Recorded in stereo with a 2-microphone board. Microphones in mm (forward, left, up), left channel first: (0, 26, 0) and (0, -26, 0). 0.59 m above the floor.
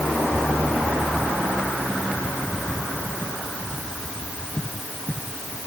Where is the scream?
I don't hear a scream.